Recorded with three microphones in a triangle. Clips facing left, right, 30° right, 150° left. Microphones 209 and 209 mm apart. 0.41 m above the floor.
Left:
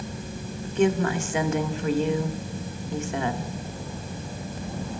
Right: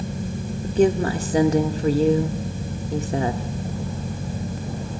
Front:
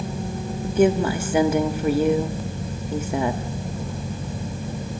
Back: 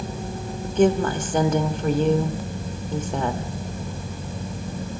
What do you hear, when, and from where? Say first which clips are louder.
0.6 s a woman speaking: right 4 dB, front 1 dB; 105° right, 0.9 m